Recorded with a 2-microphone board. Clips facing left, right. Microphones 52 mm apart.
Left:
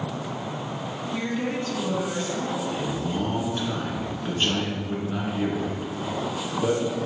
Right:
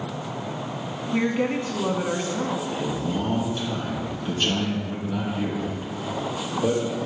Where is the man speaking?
25° left (ahead or behind), 2 m.